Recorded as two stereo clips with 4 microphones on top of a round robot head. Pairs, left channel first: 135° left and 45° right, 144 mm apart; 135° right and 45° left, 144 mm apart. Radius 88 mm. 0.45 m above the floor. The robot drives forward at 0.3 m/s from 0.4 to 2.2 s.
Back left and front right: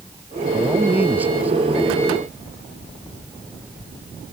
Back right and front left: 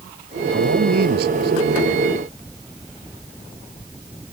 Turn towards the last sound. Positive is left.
turn(degrees=35)